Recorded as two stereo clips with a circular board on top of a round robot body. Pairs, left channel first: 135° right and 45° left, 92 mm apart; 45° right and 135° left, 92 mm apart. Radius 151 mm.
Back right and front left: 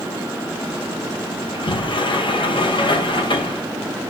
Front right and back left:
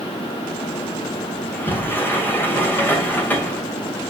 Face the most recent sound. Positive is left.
turn(degrees=-110)